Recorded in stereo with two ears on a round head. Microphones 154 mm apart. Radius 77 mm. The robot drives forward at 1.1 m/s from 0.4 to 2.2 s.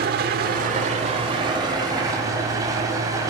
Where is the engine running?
60° right (ahead or behind), 1.1 m; by 3.3 s 20° right (ahead or behind), 2.5 m.